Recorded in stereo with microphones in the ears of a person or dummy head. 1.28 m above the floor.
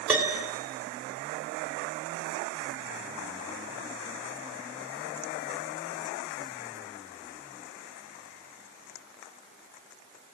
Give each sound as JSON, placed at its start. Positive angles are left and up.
{"t": 0.1, "sound": "a piano", "side_deg": -10, "distance_m": 3.0}